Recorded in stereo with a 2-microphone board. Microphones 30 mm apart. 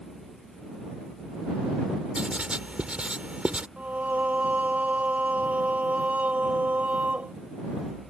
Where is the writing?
40° right (ahead or behind).